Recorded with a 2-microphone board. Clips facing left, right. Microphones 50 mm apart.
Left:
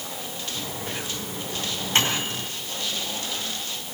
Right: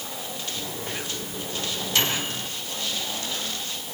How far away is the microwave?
About 5.5 m.